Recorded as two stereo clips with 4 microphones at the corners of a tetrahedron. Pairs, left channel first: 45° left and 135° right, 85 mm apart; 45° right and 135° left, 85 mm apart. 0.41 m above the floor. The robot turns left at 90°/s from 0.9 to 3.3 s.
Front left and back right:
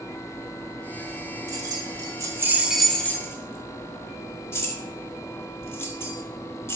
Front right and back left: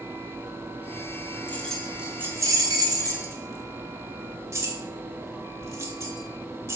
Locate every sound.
1.5 s keys jangling: 105° right, 1.1 m; by 6.8 s 95° left, 1.1 m